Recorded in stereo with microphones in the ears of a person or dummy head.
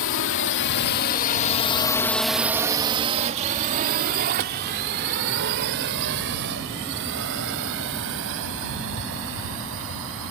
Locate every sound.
0.0 s a drone: 70° left (ahead or behind); by 10.3 s 70° right (ahead or behind)